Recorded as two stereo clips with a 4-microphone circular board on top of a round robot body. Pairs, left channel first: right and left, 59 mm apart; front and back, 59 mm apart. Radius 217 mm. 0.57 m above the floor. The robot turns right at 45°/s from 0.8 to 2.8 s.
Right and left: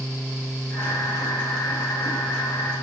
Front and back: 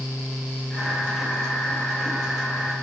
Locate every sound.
Only background noise.